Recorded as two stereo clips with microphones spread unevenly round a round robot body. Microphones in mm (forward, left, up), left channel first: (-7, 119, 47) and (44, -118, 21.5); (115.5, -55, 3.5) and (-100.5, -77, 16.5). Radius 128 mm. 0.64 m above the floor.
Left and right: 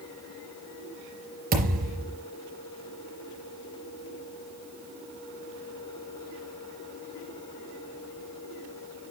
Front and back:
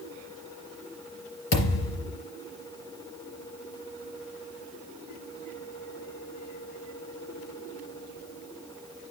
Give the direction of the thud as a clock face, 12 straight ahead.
1 o'clock.